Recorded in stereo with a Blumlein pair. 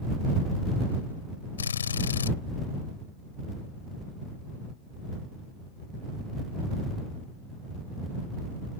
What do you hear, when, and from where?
1.6 s a drill: 70° left